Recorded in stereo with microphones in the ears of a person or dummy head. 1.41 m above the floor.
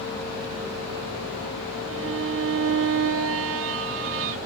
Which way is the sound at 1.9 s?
55° right (ahead or behind).